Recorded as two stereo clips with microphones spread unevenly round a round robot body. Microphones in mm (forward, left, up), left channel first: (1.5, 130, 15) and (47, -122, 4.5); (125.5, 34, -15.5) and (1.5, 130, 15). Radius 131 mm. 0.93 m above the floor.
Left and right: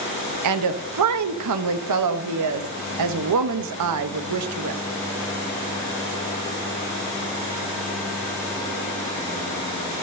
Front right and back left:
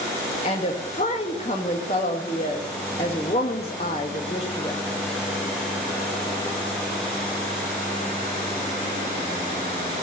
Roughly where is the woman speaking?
Right.